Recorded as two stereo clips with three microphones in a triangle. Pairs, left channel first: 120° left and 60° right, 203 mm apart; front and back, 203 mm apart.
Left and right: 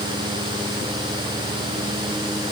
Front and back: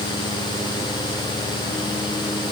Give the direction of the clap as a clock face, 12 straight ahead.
I don't hear a clap.